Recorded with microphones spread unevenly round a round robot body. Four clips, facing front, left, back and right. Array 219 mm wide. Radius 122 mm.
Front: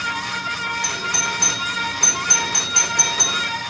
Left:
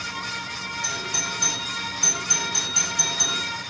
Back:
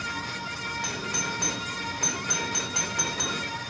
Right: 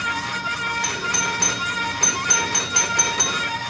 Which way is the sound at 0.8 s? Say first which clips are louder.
Right 6 dB, front 7 dB; 65° right.